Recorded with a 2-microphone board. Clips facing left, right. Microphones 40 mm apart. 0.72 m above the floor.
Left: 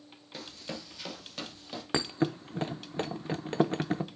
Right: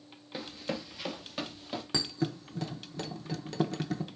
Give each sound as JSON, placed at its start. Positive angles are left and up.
{"t": 0.3, "sound": "running footsteps", "side_deg": -10, "distance_m": 0.7}
{"t": 1.9, "sound": "a thud", "side_deg": 40, "distance_m": 0.5}